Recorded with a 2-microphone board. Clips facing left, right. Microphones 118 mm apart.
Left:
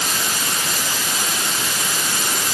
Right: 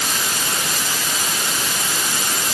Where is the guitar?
I don't hear a guitar.